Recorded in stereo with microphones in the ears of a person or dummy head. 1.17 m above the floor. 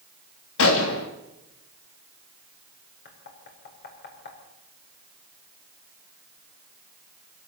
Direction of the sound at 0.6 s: 70° left (ahead or behind).